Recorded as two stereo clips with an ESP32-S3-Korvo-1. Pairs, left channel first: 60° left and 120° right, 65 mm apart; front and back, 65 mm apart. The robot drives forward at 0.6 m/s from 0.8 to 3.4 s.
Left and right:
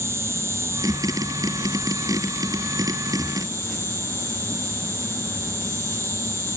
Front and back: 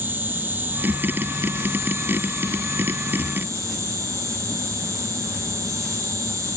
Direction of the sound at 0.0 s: 135° right.